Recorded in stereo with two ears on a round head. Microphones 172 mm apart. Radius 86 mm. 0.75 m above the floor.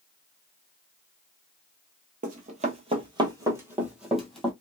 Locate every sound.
2.2 s running footsteps: 45° right (ahead or behind), 1.2 m; by 4.5 s 5° left (ahead or behind), 1.5 m